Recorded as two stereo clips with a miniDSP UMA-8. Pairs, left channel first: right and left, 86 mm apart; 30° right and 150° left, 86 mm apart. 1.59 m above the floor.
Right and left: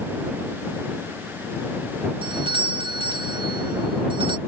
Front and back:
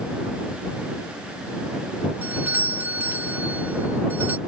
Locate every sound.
2.2 s a doorbell: 85° left